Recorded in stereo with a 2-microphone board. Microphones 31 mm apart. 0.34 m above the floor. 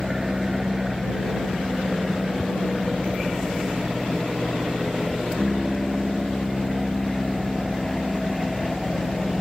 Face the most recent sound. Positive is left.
turn(degrees=5)  # may be behind; listen again after turning